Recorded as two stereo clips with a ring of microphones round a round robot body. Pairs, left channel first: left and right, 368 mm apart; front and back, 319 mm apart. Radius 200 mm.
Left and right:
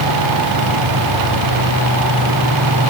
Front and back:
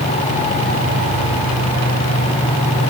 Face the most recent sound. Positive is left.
No sound to turn to.